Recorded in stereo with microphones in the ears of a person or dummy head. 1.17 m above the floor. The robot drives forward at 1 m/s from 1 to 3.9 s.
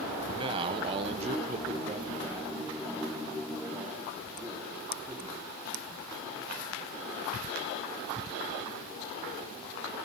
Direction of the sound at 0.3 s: 30° right (ahead or behind).